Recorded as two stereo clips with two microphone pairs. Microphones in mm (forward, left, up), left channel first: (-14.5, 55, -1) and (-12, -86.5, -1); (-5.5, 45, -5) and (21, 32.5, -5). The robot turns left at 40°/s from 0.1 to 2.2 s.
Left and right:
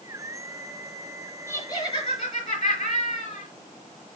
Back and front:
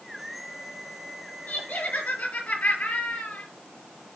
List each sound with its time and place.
1.5 s laughter: 160° left, 5.5 m; by 3.5 s 135° left, 5.5 m